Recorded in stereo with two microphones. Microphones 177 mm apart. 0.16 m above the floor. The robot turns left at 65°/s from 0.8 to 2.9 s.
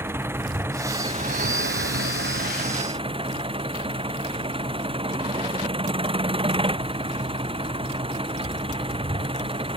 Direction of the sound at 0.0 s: 15° right.